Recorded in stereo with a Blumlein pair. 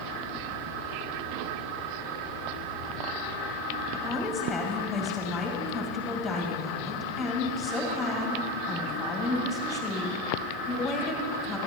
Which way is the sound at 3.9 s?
5° left.